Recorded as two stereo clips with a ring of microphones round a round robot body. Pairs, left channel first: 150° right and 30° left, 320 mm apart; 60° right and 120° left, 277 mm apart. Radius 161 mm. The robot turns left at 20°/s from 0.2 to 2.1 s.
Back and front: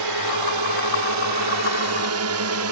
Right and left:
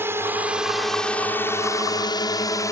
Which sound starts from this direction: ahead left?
A drone, at 0.0 s.